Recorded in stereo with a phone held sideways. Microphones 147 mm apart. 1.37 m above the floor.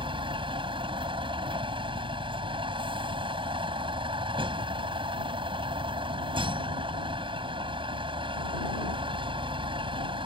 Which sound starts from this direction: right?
A vehicle, at 0.0 s.